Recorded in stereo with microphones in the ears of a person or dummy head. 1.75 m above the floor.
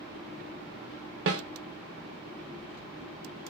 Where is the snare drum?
65° right (ahead or behind), 0.6 m.